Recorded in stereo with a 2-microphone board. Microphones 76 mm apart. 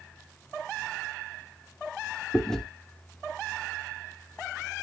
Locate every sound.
2.3 s chewing: 10° left (ahead or behind), 0.6 m